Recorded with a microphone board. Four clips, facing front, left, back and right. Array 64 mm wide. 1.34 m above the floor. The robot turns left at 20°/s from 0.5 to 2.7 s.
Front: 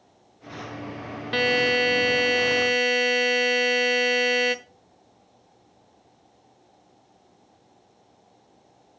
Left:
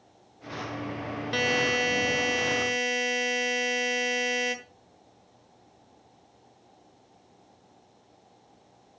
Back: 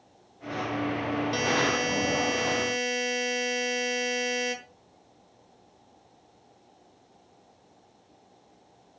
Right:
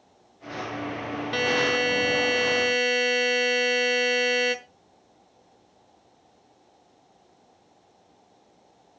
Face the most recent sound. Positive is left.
turn(degrees=-35)